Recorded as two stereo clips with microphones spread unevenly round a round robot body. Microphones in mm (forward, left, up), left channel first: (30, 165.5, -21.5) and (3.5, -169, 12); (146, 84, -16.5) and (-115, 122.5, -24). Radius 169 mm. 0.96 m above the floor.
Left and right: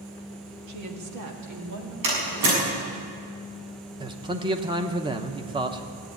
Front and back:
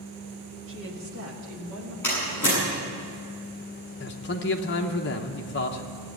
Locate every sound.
0.7 s a woman speaking: 135° right, 1.4 m
2.0 s a door slam: 90° right, 7 m
4.0 s a man speaking: 20° right, 0.8 m